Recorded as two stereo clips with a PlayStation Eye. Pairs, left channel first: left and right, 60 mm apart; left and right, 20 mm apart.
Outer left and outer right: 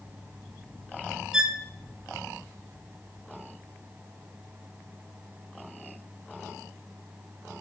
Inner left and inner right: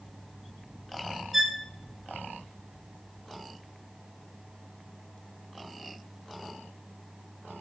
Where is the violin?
10° right (ahead or behind), 2.5 m.